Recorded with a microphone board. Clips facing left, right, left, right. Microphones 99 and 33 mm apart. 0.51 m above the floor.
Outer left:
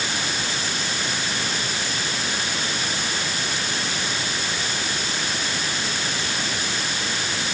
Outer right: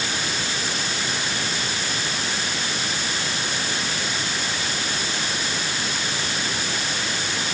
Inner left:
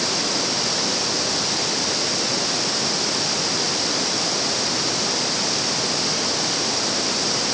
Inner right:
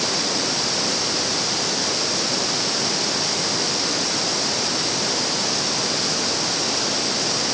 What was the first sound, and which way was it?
Only background noise.